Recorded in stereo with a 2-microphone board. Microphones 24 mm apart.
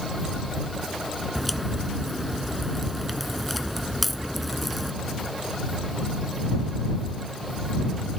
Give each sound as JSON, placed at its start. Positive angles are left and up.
{"t": 1.4, "sound": "a crack", "side_deg": 5}